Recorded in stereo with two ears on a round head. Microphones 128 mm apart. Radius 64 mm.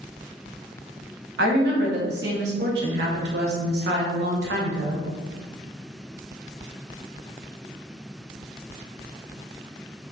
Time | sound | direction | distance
1.4 | a woman speaking | 80° right | 1.0 m